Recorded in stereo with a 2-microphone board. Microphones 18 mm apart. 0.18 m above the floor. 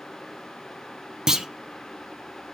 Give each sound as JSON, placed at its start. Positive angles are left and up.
{"t": 1.3, "sound": "a clunk", "side_deg": -30, "distance_m": 0.9}